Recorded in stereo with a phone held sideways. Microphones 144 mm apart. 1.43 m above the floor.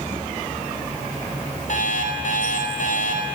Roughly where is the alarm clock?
Left.